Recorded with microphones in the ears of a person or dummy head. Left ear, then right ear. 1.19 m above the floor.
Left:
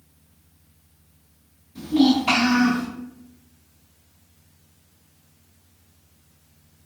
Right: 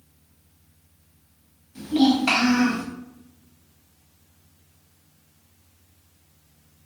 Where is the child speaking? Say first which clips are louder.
Left 1 dB; 40° right (ahead or behind), 1.8 m.